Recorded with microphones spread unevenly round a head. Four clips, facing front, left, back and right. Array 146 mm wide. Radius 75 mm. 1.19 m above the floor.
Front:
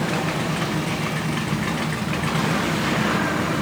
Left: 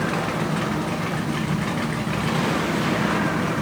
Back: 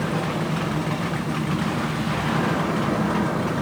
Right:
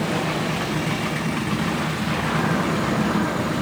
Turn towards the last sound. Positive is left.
No sound to turn to.